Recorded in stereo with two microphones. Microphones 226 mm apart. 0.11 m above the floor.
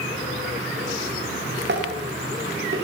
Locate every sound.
1.7 s dishes clattering: 55° right (ahead or behind), 10 m